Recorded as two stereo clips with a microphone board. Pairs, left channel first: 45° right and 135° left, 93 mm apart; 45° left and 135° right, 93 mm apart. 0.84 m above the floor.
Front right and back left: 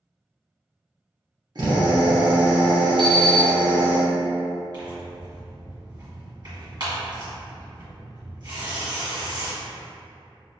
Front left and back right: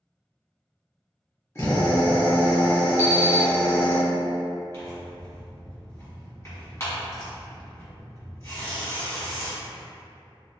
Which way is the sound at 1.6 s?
100° left.